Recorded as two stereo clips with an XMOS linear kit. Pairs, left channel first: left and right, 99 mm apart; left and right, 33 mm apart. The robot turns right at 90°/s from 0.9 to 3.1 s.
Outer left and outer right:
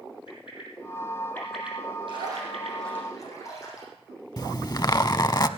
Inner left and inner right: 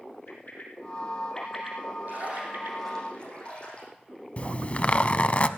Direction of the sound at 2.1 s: 60° right.